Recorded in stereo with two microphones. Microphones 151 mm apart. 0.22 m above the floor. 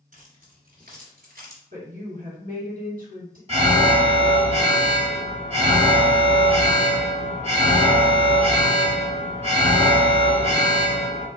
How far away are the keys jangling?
About 1.9 m.